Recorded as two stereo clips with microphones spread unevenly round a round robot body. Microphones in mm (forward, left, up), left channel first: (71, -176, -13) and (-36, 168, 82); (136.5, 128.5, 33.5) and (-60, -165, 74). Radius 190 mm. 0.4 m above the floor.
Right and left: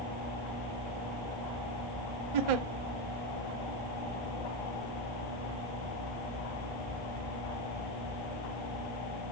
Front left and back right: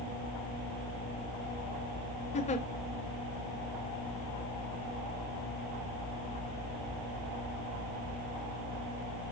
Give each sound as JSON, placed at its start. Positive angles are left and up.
{"t": 2.3, "sound": "a giggle", "azimuth_deg": 125, "distance_m": 0.7}